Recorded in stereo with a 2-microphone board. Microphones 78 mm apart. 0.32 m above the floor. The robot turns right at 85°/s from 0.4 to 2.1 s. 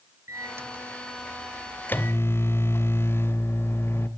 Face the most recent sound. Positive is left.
turn(degrees=65)